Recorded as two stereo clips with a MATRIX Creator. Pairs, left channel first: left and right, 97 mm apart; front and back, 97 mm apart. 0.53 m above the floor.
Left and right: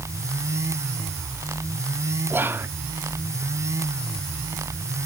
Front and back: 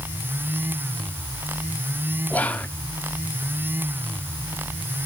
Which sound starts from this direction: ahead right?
Whispering, at 2.3 s.